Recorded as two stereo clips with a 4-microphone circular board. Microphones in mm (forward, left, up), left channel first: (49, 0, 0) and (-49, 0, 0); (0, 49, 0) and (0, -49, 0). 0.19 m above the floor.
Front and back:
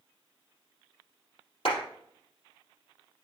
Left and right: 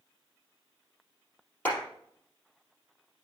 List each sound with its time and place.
1.6 s a clap: 15° left, 4 m